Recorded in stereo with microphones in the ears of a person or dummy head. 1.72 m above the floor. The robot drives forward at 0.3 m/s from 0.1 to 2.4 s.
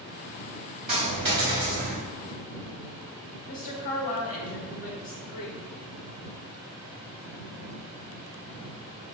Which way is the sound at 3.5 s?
40° left (ahead or behind).